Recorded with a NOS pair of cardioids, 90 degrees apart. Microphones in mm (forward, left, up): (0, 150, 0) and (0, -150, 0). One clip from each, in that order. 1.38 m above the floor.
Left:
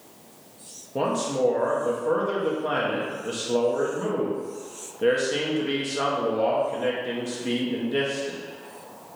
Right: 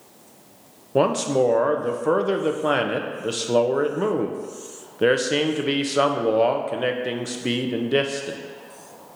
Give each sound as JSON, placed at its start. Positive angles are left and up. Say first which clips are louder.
{"t": 0.9, "sound": "a man speaking", "louder": "right 5 dB", "azimuth_deg": -40, "distance_m": 0.6}